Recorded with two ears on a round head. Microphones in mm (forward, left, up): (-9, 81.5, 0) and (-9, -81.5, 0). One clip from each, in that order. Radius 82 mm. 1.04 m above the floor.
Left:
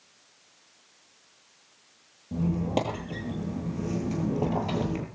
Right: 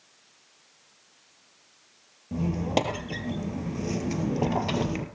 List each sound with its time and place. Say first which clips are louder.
2.3 s a squeak: right 2 dB; 35° right (ahead or behind), 1.6 m